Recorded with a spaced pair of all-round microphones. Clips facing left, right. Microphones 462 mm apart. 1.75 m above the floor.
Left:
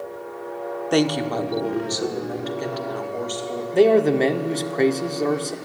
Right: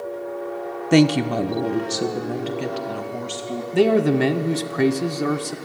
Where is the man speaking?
25° right (ahead or behind), 1.0 m.